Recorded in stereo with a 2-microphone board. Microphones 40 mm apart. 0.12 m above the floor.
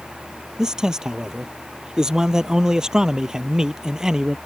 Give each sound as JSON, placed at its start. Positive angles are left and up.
{"t": 0.6, "sound": "a man speaking", "side_deg": -15}